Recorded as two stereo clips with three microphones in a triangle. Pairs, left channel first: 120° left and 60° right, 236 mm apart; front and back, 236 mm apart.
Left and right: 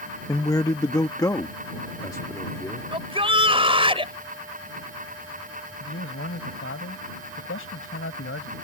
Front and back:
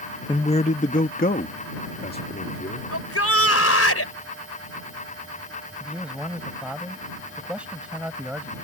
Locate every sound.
0.3 s a man speaking: 55° left; by 2.9 s 45° left
2.9 s a shout: 5° left
5.8 s a man speaking: 95° left